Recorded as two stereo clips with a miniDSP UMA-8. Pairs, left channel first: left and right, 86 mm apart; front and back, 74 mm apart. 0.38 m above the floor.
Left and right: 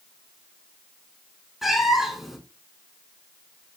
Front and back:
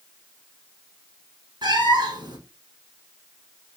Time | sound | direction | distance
1.6 | a cat meowing | 175° right | 1.1 m